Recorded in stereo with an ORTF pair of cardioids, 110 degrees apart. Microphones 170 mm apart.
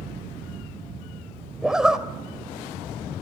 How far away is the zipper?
About 2.5 m.